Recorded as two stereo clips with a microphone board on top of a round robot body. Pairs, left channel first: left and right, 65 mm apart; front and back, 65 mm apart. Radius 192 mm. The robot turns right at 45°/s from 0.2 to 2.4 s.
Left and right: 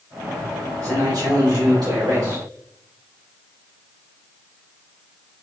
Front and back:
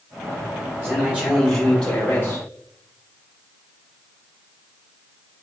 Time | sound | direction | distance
0.8 | a man speaking | 125° right | 2 m